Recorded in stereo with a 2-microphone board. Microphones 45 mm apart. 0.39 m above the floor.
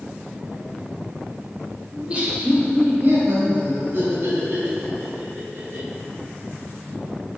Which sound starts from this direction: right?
Laughter, at 1.9 s.